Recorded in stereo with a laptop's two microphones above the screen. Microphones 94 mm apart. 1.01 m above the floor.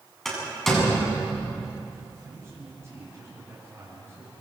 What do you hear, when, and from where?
0.2 s a door slam: 5° left (ahead or behind), 8 m
2.2 s a man speaking: 30° right (ahead or behind), 7.5 m